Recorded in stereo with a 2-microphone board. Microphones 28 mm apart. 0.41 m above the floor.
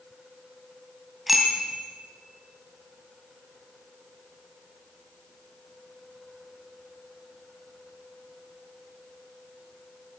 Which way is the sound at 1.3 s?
5° right (ahead or behind).